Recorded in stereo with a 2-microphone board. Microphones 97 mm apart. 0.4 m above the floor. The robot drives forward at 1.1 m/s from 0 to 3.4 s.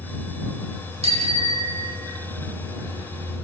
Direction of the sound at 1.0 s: 85° right.